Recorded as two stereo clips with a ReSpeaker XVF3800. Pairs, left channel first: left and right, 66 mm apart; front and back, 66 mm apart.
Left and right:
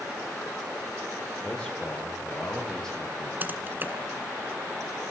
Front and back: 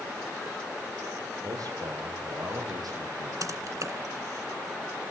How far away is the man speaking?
About 8 m.